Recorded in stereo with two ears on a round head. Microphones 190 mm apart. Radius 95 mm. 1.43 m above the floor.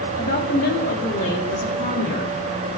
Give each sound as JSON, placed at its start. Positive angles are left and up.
{"t": 0.2, "sound": "a woman speaking", "side_deg": 40, "distance_m": 1.8}